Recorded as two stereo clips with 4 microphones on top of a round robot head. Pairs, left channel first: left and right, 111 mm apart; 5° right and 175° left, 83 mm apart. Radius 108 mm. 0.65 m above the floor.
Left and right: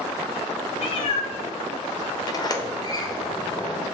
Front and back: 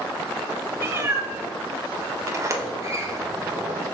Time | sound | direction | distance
0.8 | a cat meowing | 110° left | 0.9 m
2.3 | a sliding door | 130° left | 0.9 m